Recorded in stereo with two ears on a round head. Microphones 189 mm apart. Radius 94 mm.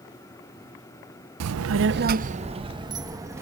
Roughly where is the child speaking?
Right.